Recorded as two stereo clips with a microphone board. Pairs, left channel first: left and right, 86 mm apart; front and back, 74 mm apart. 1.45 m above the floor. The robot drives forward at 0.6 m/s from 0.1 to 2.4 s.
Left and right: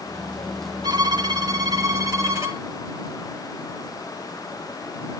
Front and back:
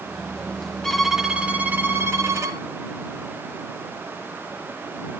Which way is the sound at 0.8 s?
85° right.